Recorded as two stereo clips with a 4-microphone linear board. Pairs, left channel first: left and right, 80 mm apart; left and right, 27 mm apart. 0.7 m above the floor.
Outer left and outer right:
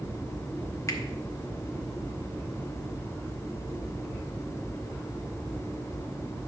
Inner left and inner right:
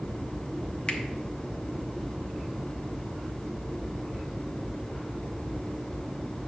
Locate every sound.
0.9 s a finger snap: 35° left (ahead or behind), 1.3 m